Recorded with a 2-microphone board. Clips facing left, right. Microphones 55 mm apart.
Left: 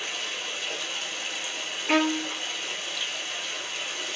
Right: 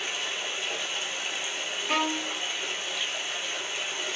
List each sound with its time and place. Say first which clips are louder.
0.0 s running water: right 1 dB; 20° right (ahead or behind), 1.1 m
1.9 s a violin: left 5 dB; 60° left (ahead or behind), 0.5 m